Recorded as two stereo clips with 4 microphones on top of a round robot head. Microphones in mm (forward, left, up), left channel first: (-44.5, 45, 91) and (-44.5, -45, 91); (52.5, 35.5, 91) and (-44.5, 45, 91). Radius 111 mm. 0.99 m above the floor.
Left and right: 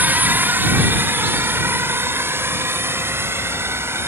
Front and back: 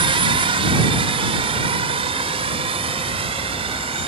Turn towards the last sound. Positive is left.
turn(degrees=-155)